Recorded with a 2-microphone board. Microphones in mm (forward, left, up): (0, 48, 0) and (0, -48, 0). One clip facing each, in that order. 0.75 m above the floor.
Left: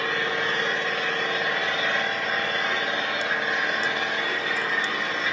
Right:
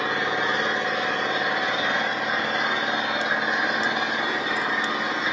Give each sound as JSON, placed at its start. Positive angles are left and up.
{"t": 0.0, "sound": "an engine running", "side_deg": -20, "distance_m": 3.5}